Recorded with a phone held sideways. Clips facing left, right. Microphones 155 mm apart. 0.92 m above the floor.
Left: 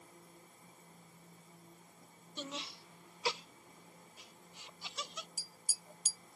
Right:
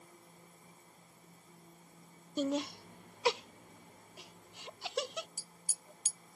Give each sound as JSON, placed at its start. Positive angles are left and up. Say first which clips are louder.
{"t": 2.4, "sound": "laughter", "louder": "right 13 dB", "side_deg": -45}
{"t": 5.4, "sound": "tapping", "louder": "even", "side_deg": 5}